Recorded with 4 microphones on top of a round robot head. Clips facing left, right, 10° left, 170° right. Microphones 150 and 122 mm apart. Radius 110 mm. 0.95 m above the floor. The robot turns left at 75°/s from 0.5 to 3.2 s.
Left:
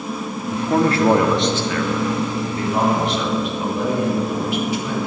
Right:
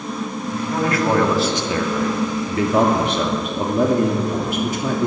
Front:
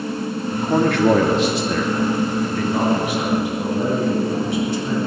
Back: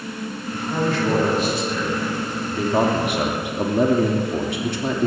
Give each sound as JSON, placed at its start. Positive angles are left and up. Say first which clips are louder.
{"t": 0.5, "sound": "a man speaking", "louder": "left 4 dB, front 5 dB", "azimuth_deg": 65, "distance_m": 2.5}